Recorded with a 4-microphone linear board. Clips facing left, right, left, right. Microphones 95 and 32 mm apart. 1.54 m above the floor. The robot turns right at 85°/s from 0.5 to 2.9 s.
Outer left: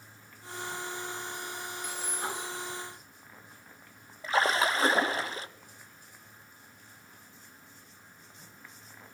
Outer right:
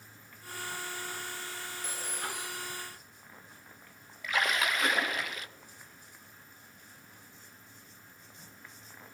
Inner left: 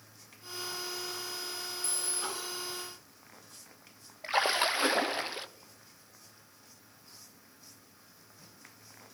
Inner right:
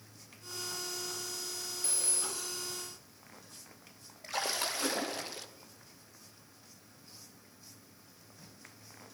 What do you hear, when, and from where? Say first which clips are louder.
1.8 s a phone ringing: outer left 3 dB, inner left 1 dB; 145° right, 1.8 m; by 2.6 s 80° right, 1.8 m
4.2 s a splash: outer left 4 dB, inner left 7 dB; 35° left (ahead or behind), 0.5 m